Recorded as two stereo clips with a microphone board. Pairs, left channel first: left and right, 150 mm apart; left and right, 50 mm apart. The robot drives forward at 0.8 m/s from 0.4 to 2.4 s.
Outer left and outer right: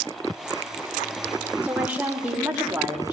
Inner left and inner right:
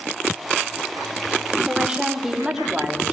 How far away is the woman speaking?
About 4 m.